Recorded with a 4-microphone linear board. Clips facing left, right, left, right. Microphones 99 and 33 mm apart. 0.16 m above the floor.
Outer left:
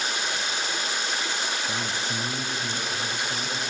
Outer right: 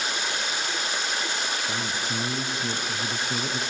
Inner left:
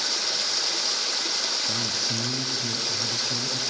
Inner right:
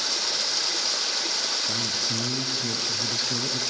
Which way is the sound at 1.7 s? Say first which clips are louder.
Even, even; 5° right (ahead or behind).